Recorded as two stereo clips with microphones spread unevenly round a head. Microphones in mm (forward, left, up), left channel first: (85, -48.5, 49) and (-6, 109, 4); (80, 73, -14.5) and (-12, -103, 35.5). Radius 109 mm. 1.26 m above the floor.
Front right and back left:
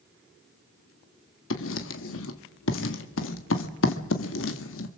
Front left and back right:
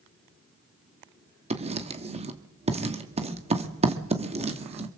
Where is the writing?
60° right, 1.9 m.